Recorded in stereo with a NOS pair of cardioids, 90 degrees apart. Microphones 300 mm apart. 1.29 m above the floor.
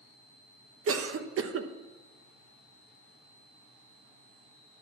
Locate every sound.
0.9 s a cough: 50° right, 1.1 m